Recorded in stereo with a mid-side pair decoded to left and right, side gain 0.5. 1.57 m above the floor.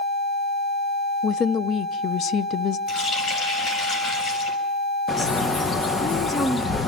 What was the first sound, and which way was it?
A woman speaking, 55° left.